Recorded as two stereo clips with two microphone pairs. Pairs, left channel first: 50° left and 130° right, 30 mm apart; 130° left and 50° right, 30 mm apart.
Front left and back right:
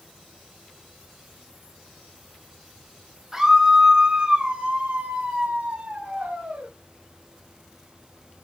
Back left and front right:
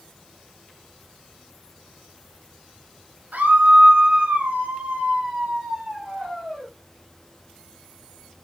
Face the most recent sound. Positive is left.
turn(degrees=-120)